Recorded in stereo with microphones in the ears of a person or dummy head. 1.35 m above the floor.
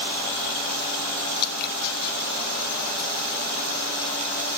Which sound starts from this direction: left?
Dripping, at 1.4 s.